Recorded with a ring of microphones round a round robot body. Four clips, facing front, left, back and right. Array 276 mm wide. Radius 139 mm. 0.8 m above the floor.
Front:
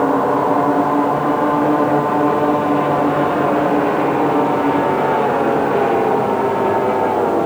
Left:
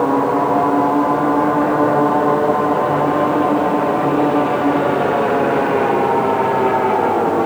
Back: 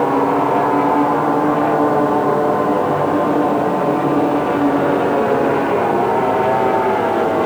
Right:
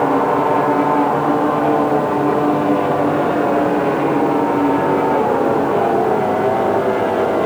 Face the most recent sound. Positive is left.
No sound to turn to.